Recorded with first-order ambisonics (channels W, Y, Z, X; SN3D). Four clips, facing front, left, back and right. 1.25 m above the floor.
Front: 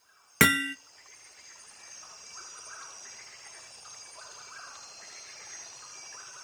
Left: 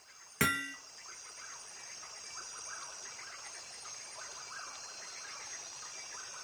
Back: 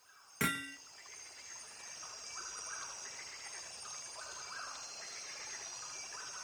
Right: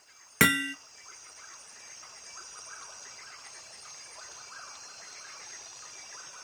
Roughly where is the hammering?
Ahead right.